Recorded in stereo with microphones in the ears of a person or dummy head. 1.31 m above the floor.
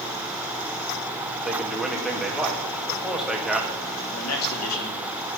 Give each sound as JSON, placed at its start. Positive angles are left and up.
{"t": 1.4, "sound": "a man speaking", "side_deg": 0, "distance_m": 2.5}
{"t": 4.1, "sound": "a man speaking", "side_deg": 75, "distance_m": 3.0}